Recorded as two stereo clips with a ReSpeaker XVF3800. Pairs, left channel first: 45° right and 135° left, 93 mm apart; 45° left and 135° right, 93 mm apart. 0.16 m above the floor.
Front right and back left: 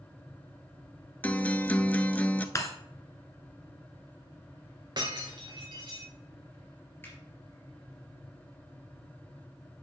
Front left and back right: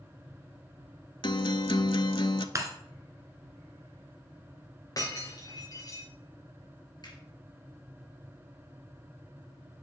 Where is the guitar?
25° left, 0.5 m.